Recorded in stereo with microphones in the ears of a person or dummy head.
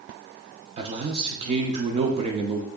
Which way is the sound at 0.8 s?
30° right (ahead or behind).